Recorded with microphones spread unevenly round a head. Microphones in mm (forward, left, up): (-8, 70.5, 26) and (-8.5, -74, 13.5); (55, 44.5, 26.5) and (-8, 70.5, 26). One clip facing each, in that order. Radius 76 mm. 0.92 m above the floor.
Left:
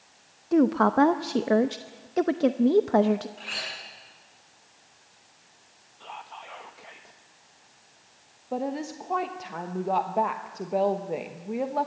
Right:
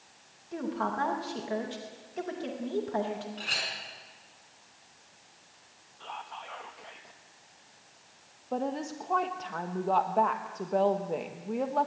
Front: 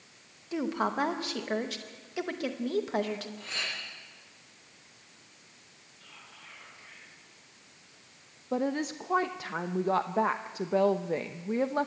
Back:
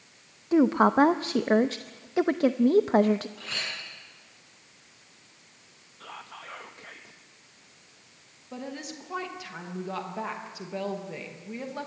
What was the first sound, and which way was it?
A woman speaking, 105° left.